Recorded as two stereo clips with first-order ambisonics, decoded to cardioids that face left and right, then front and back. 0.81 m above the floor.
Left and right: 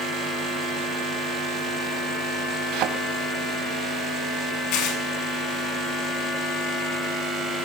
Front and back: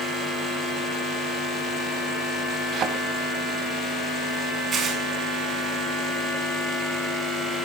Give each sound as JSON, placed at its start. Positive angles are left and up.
{"t": 2.7, "sound": "a thud", "azimuth_deg": -125, "distance_m": 2.5}
{"t": 4.7, "sound": "tearing paper", "azimuth_deg": 115, "distance_m": 6.5}